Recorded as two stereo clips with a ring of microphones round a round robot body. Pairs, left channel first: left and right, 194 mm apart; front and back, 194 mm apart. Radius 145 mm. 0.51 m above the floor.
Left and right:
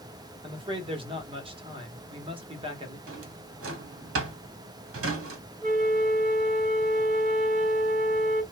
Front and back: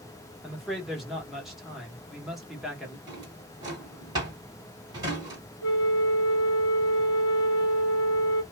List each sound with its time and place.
0.4 s a man speaking: 95° right, 1.0 m
3.1 s a drawer: 105° right, 0.9 m
5.6 s a flute: 35° right, 0.7 m